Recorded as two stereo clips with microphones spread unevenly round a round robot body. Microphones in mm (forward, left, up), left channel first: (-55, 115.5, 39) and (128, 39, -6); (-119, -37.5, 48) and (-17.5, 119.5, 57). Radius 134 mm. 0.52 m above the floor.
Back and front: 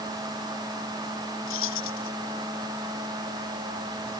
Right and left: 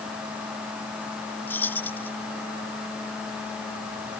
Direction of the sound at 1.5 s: 160° left.